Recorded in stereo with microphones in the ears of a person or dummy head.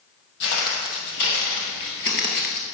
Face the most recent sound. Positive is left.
turn(degrees=35)  # may be behind; listen again after turning